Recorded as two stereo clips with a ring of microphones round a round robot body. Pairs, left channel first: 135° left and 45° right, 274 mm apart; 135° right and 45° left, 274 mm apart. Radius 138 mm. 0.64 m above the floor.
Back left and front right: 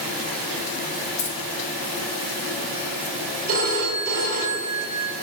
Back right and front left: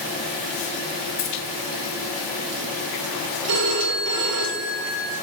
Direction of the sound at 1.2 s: 175° right.